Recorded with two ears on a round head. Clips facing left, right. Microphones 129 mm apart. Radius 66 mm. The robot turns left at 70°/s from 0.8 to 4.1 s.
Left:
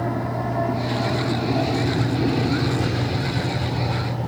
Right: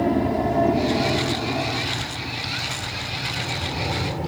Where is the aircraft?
25° right (ahead or behind); by 4.3 s 10° right (ahead or behind).